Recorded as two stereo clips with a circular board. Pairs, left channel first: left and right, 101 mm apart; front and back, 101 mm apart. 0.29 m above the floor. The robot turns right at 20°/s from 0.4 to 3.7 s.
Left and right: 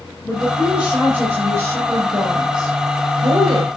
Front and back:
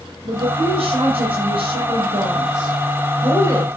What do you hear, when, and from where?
0.2 s a woman speaking: 175° right, 4 m; by 3.7 s 110° right, 4 m